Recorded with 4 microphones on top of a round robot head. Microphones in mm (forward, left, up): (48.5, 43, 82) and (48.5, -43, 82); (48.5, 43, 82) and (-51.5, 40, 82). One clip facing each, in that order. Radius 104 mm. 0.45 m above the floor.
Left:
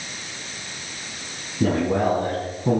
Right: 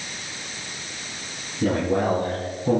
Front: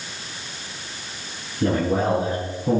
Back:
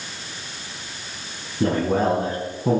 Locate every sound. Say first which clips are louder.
1.6 s a man speaking: left 1 dB, back 1 dB; 140° left, 6.5 m; by 2.8 s 150° left, 7 m